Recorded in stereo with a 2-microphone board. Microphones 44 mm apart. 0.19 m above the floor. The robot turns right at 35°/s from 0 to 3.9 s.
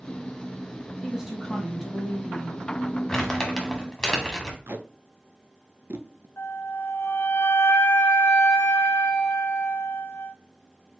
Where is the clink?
I don't hear a clink.